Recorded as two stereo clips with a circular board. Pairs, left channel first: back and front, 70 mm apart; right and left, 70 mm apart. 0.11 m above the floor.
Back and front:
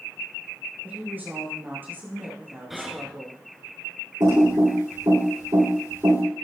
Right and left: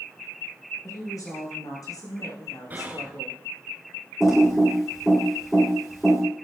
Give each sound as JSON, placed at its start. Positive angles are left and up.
{"t": 0.8, "sound": "a woman speaking", "azimuth_deg": -60, "distance_m": 7.5}
{"t": 2.7, "sound": "whispering", "azimuth_deg": 85, "distance_m": 1.4}
{"t": 4.2, "sound": "typing on a keyboard", "azimuth_deg": 0, "distance_m": 7.5}